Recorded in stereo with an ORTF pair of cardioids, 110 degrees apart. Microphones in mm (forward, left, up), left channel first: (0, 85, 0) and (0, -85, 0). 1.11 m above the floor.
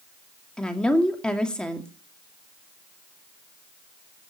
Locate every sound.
0.6 s a woman speaking: 5° left, 2 m